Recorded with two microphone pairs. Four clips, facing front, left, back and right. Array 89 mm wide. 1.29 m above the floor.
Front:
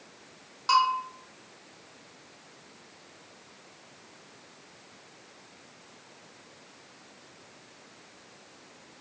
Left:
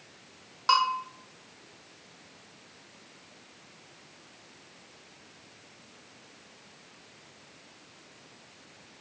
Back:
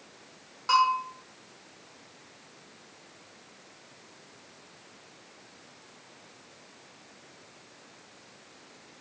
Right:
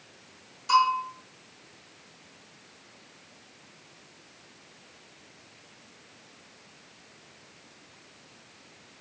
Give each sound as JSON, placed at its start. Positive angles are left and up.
{"t": 0.7, "sound": "a bell", "azimuth_deg": 85, "distance_m": 0.9}